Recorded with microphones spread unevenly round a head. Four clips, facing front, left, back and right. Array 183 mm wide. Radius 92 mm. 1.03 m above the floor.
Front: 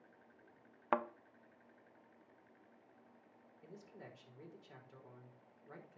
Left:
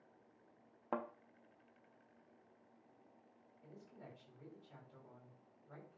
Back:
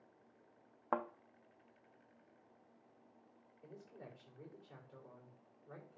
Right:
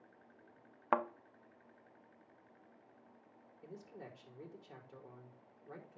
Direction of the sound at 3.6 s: 75° right.